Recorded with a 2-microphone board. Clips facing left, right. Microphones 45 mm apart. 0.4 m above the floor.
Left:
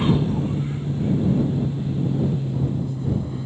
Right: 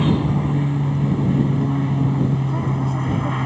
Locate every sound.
0.0 s an aircraft: 65° right (ahead or behind)